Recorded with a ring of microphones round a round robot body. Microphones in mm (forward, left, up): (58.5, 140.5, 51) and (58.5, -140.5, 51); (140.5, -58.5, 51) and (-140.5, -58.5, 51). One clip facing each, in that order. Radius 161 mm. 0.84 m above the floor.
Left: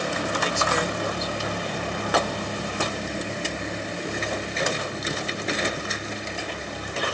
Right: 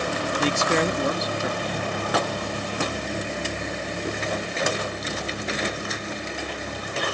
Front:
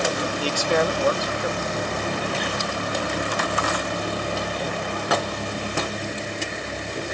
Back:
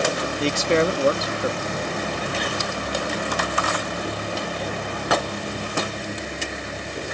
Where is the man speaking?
115° right.